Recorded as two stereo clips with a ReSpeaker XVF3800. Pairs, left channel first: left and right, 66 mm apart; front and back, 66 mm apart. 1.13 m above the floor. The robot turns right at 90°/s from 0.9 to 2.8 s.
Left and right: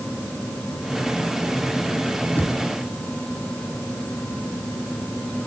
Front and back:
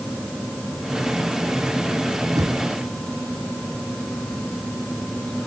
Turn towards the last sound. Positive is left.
turn(degrees=-165)